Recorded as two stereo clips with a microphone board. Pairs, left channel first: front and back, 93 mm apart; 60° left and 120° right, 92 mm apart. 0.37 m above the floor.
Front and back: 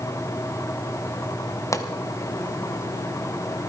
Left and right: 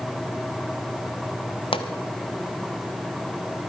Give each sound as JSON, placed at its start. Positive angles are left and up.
{"t": 1.7, "sound": "a pop", "azimuth_deg": 55, "distance_m": 1.2}